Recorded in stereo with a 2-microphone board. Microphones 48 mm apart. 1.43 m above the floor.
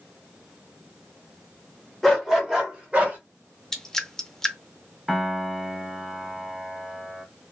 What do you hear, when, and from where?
2.0 s a dog barking: 5° left (ahead or behind), 1.2 m; by 3.2 s 30° right (ahead or behind), 1.2 m
3.7 s dripping: 10° left (ahead or behind), 0.6 m
5.1 s a piano: 5° right (ahead or behind), 0.6 m